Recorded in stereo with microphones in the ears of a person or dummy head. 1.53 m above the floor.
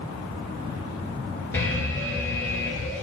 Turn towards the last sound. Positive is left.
turn(degrees=10)  # may be behind; listen again after turning